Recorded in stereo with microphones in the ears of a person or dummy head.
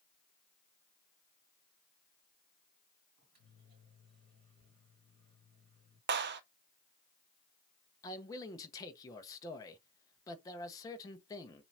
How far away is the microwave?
About 3 m.